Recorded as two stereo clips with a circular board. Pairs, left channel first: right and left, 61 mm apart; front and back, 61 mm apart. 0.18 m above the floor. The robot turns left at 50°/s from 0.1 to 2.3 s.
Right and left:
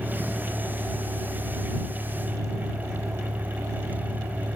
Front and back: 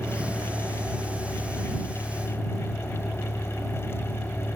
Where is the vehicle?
175° left; by 4.6 s 65° left.